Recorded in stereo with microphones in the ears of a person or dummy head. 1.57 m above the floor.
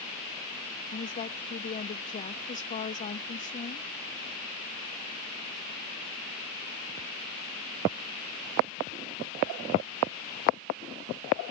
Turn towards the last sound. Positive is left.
turn(degrees=35)  # may be behind; listen again after turning